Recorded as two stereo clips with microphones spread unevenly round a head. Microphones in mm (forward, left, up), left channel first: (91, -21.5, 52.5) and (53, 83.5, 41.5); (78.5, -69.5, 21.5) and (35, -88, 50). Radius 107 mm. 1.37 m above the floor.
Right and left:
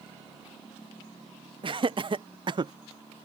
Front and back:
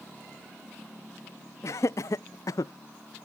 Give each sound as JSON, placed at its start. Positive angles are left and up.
{"t": 1.6, "sound": "laughter", "azimuth_deg": 70}